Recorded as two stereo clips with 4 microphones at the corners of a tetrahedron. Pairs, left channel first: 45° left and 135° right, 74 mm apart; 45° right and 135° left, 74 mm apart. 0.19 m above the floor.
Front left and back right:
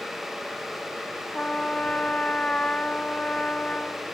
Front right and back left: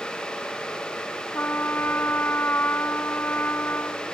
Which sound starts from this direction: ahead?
A trumpet, at 1.3 s.